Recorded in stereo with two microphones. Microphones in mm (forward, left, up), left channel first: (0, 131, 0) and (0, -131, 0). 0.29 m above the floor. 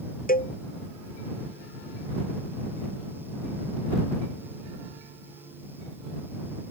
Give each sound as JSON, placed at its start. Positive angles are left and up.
{"t": 0.3, "sound": "a cowbell", "side_deg": 35}